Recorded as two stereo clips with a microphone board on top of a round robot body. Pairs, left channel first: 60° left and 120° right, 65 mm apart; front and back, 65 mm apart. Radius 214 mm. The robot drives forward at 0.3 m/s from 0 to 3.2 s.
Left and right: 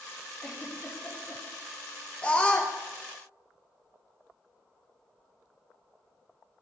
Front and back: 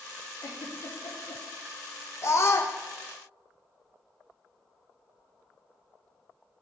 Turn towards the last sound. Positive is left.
turn(degrees=-5)